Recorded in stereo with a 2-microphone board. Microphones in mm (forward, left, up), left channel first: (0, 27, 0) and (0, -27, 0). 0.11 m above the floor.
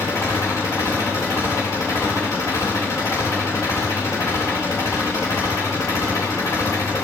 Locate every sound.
0.0 s an engine running: 70° left (ahead or behind), 7 m